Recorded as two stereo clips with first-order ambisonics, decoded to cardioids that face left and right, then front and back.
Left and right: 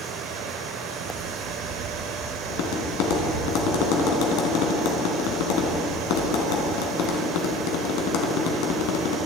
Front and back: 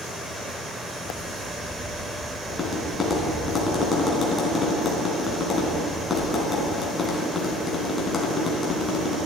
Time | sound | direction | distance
0.0 | running water | 95° right | 1.3 m
2.5 | tapping | 75° left | 3 m